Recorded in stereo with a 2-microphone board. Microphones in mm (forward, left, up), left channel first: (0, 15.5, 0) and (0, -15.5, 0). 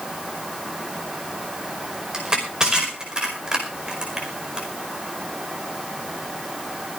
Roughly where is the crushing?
Right.